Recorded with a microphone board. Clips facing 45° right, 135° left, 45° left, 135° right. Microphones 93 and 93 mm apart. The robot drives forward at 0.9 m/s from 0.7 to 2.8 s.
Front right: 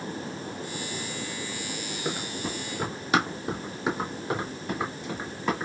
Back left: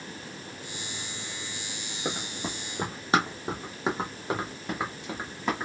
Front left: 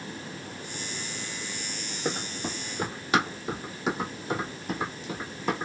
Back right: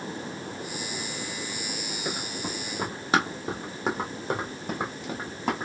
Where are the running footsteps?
80° left, 1.1 m; by 5.7 s 155° right, 2 m.